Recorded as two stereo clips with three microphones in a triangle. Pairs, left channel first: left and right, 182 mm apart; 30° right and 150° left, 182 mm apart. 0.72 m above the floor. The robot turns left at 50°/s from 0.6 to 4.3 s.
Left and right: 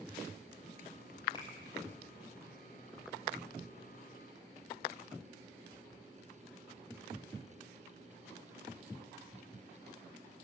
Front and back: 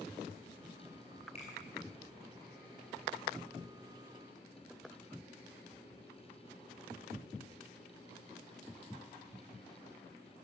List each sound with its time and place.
1.4 s a finger snap: 25° left, 8 m; by 1.5 s 15° left, 8 m